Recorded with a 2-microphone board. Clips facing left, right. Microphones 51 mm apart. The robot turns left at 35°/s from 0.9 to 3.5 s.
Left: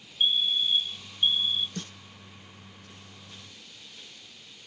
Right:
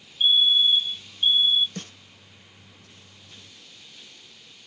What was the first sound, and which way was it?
A fire alarm, centre (ahead or behind).